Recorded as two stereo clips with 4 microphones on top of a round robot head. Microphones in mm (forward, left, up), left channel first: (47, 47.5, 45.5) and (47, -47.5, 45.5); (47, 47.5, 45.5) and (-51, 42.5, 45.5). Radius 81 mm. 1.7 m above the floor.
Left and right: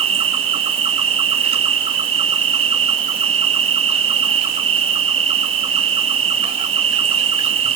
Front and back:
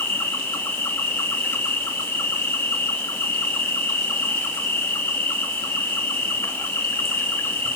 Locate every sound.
0.0 s an insect: 75° right, 3 m